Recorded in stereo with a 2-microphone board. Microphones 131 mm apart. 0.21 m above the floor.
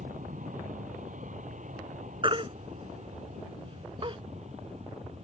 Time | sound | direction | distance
0.0 | an aircraft | 75° right (ahead or behind) | ?
2.2 | a baby crying | 40° right (ahead or behind) | ?